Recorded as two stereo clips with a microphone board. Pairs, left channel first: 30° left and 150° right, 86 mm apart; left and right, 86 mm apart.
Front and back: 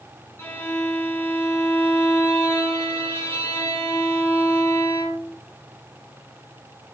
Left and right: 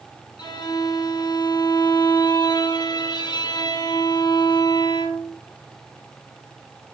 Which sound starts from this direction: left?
A violin, at 0.4 s.